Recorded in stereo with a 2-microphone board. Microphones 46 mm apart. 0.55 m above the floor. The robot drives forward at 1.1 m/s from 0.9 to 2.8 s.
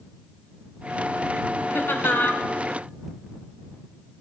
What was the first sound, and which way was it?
Laughter, 60° left (ahead or behind).